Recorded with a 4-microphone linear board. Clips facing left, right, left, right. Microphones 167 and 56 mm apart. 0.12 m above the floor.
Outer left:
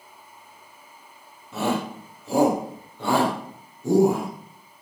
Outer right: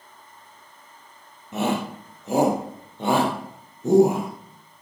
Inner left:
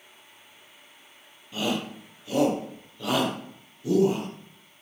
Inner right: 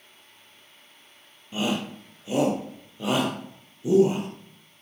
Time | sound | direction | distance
1.5 | a shout | 20° right (ahead or behind) | 3 m